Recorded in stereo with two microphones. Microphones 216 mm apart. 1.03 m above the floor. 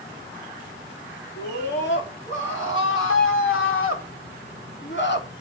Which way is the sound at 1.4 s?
60° left (ahead or behind).